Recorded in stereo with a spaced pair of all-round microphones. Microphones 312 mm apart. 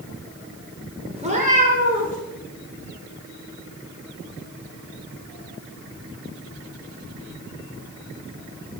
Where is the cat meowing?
20° right (ahead or behind), 0.8 m; by 2.2 s 25° right (ahead or behind), 1.3 m.